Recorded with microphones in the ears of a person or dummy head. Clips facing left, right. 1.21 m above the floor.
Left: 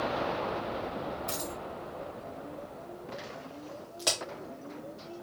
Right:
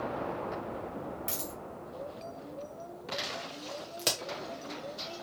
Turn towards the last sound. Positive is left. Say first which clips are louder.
# left 2 dB
turn(degrees=-30)  # may be behind; listen again after turning